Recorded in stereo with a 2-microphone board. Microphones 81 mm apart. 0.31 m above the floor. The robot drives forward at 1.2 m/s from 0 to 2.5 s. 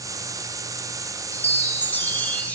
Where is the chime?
20° left (ahead or behind), 1.1 m; by 2.6 s 15° left (ahead or behind), 1.3 m.